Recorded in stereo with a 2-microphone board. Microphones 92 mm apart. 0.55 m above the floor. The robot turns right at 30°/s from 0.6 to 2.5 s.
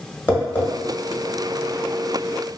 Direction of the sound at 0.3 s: 25° left (ahead or behind).